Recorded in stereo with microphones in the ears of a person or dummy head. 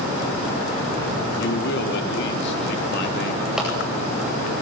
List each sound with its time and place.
1.4 s a man speaking: 65° left (ahead or behind), 3.5 m
3.6 s a clap: 5° right (ahead or behind), 9 m